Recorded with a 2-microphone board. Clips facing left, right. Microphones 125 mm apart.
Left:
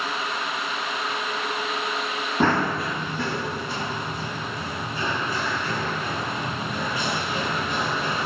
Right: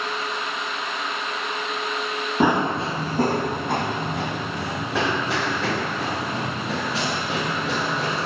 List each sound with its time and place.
2.4 s running footsteps: 10° right (ahead or behind), 1.0 m; by 8.2 s 85° right, 4 m